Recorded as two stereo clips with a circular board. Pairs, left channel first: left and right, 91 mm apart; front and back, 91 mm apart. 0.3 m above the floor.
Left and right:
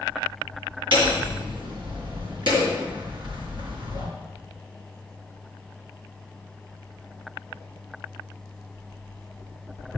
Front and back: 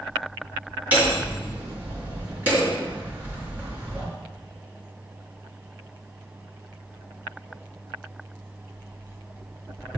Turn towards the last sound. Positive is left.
turn(degrees=-110)